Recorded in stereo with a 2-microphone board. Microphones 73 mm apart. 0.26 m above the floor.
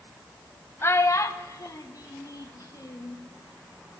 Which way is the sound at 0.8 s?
35° left (ahead or behind).